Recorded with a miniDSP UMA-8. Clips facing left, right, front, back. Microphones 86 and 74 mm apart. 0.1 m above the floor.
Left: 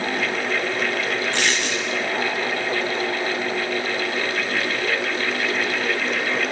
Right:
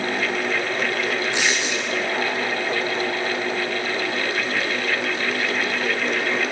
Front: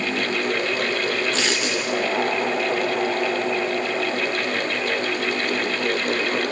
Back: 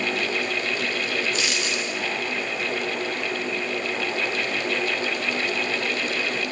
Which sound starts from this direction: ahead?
A dropped coin, at 1.3 s.